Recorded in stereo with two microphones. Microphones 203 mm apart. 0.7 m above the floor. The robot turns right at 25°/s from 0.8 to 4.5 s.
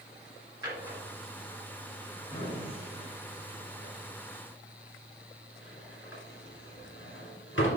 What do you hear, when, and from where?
0.6 s a drawer: 20° right (ahead or behind), 2.5 m; by 7.7 s 70° left (ahead or behind), 2.5 m